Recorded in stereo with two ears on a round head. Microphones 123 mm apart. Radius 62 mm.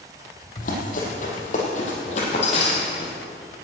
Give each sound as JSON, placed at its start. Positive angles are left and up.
{"t": 0.6, "sound": "running footsteps", "side_deg": 65, "distance_m": 3.5}